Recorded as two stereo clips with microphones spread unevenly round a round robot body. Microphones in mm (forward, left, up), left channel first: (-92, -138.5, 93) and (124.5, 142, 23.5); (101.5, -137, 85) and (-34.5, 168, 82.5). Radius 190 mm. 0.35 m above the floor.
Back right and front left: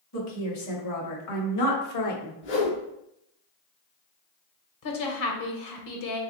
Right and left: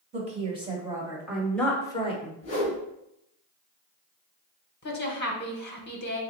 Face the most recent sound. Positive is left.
turn(degrees=-115)